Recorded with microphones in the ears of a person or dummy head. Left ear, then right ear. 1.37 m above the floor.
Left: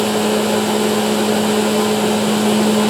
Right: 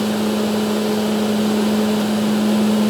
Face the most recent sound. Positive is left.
No sound to turn to.